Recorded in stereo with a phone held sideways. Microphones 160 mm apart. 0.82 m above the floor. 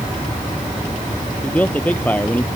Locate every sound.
1.4 s a man speaking: 10° left (ahead or behind)